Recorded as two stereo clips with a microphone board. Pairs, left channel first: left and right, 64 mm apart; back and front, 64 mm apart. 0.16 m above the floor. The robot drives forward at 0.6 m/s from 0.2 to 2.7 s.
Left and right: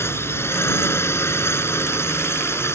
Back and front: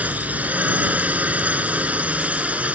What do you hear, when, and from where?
0.0 s a drone: 60° left